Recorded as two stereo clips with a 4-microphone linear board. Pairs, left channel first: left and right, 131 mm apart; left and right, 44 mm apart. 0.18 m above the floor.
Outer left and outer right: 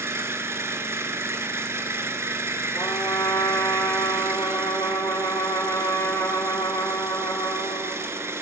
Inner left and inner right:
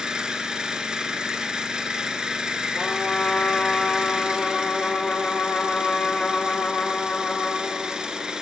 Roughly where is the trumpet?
Left.